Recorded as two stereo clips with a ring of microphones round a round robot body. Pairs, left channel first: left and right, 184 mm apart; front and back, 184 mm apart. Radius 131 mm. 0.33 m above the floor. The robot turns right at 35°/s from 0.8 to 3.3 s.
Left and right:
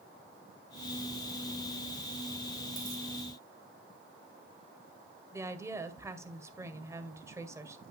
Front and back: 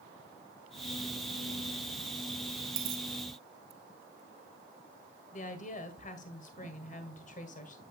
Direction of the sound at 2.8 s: 160° right.